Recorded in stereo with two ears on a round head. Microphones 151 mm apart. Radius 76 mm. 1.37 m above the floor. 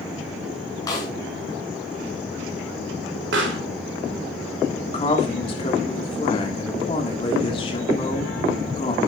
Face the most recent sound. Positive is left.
turn(degrees=30)  # may be behind; listen again after turning